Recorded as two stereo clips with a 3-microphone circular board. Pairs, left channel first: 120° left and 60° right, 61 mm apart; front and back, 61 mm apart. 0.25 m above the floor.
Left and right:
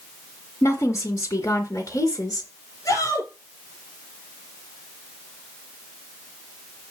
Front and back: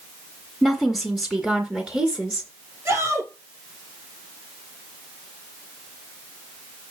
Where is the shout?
150° left, 4.5 m.